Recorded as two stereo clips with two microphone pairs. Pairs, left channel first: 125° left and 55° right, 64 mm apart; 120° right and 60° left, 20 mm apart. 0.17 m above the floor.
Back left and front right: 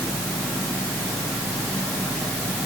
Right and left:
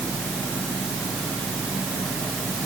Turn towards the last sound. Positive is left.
No sound to turn to.